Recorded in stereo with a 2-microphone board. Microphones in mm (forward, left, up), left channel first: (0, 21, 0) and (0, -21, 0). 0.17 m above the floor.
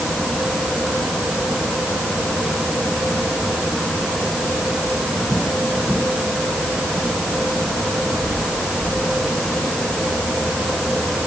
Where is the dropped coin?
I don't hear a dropped coin.